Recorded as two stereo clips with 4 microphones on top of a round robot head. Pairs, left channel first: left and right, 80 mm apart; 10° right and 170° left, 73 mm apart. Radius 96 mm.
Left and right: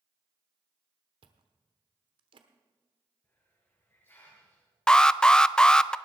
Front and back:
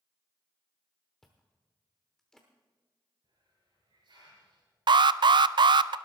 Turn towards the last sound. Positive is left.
turn(degrees=170)